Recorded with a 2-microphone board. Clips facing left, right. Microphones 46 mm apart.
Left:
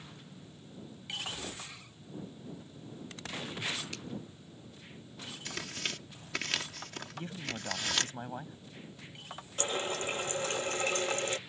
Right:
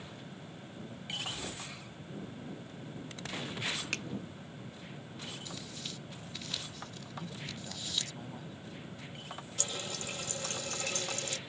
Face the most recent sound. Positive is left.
turn(degrees=35)  # may be behind; listen again after turning